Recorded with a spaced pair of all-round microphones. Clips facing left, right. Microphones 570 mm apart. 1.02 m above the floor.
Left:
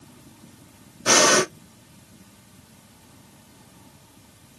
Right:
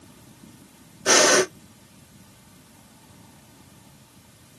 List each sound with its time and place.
1.1 s breathing: 30° left (ahead or behind), 0.8 m